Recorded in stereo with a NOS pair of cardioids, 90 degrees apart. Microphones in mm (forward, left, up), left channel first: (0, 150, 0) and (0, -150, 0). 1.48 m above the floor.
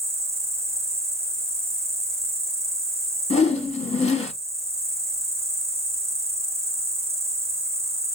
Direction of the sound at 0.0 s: 10° right.